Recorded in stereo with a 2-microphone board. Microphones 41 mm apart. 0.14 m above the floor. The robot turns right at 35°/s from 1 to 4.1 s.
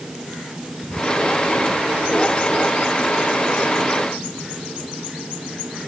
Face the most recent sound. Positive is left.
No sound to turn to.